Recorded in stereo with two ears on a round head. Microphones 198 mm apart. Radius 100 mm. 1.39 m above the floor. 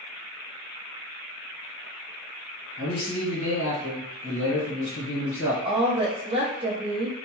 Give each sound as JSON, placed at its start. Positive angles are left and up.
{"t": 2.8, "sound": "a man speaking", "side_deg": 70, "distance_m": 1.4}
{"t": 5.7, "sound": "a woman speaking", "side_deg": -25, "distance_m": 0.6}